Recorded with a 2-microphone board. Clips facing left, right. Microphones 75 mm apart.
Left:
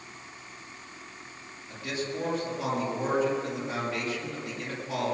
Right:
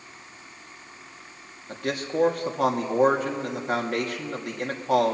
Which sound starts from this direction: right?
A man speaking, at 1.7 s.